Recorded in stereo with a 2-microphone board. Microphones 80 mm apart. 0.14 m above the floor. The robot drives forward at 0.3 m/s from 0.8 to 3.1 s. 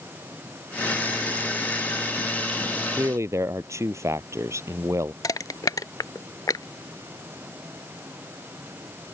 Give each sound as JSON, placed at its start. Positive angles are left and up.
{"t": 2.9, "sound": "a man speaking", "side_deg": -35}
{"t": 5.2, "sound": "crushing", "side_deg": 50}